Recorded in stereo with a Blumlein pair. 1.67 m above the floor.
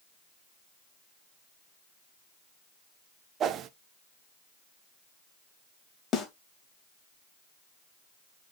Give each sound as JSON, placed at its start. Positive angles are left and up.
{"t": 3.4, "sound": "a whoosh", "azimuth_deg": -30, "distance_m": 0.7}
{"t": 6.1, "sound": "a snare drum", "azimuth_deg": 20, "distance_m": 2.5}